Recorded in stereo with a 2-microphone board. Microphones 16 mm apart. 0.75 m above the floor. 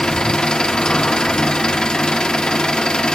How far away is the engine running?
About 0.8 m.